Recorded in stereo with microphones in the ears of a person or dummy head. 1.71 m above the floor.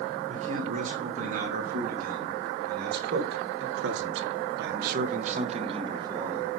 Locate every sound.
0.3 s a man speaking: 45° right (ahead or behind), 3.5 m; by 6.5 s 15° right (ahead or behind), 1.6 m